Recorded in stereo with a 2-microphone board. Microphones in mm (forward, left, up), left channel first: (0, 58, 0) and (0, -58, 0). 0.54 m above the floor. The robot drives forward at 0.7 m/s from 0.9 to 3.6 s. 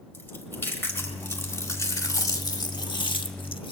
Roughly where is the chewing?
Centre.